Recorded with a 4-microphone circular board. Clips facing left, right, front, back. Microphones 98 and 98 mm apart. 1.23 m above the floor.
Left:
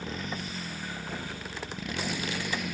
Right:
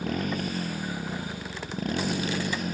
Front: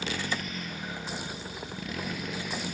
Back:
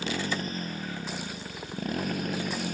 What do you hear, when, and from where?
0.0 s a motorcycle: 125° right; by 2.7 s 140° right